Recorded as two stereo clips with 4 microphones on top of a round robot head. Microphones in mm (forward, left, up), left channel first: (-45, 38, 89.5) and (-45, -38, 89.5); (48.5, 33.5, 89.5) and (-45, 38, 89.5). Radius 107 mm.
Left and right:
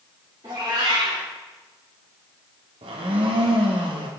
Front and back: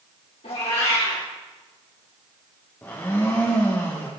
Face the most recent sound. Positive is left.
turn(degrees=-80)